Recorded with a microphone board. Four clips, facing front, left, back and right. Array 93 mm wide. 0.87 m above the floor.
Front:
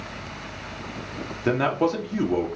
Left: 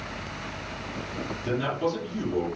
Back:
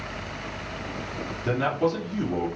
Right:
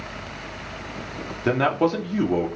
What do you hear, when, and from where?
1.4 s a man speaking: 55° right, 2 m